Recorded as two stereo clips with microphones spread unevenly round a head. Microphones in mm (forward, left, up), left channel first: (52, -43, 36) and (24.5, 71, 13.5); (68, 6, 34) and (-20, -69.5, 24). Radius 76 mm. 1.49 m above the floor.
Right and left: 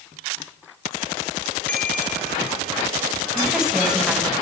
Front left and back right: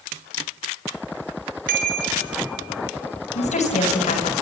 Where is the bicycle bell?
155° right, 4 m; by 3.2 s 160° right, 5.5 m.